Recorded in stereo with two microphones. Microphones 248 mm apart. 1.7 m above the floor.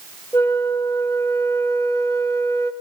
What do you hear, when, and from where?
0.3 s a flute: 10° left (ahead or behind), 1.3 m